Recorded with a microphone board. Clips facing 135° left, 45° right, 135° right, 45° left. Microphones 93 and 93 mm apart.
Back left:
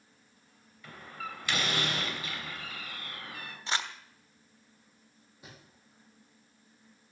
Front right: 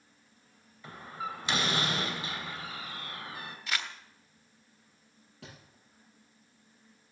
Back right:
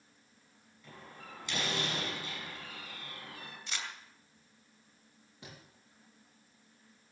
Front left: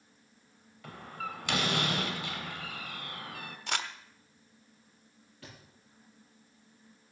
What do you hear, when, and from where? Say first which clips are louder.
0.8 s a door slam: front right 3 dB, front left 10 dB; 15° left, 2.5 m
3.7 s crumpling: back left 3 dB, front left 8 dB; 70° left, 1.2 m
5.4 s a thud: front right 2 dB, front left 1 dB; 65° right, 6.5 m